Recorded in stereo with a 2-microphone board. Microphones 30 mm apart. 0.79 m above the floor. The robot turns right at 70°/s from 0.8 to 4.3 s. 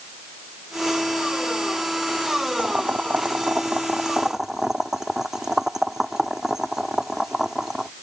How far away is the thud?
No thud in this recording.